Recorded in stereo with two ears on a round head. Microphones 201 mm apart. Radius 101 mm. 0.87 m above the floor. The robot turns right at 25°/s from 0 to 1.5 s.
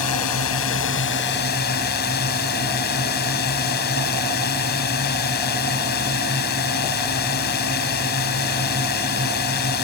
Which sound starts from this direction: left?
A drone, at 0.0 s.